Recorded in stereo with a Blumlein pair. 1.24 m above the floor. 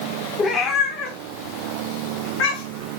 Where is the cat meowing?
20° left, 2 m; by 2.9 s 50° left, 3 m.